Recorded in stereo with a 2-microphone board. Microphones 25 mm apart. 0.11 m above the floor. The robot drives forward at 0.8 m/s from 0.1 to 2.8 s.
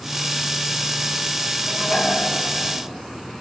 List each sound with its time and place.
1.7 s dishes clattering: 45° left (ahead or behind), 9.5 m